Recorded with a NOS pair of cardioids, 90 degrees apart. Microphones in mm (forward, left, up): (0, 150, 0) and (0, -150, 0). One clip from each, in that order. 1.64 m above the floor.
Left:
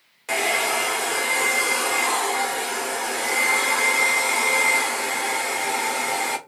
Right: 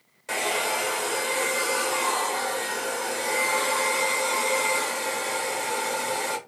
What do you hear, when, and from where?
0.3 s a hair dryer: 30° left, 1.0 m